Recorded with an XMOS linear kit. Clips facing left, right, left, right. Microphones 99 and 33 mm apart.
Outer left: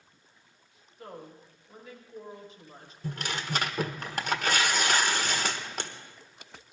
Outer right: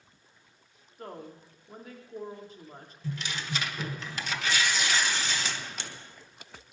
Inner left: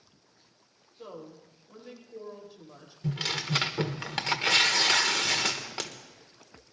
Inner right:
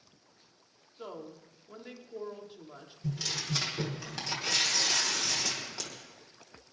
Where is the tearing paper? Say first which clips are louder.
Outer left 2 dB, inner left 4 dB; 50° left (ahead or behind), 1.3 m.